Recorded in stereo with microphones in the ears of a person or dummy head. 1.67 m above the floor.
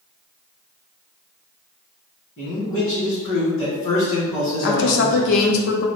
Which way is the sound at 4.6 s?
60° left (ahead or behind).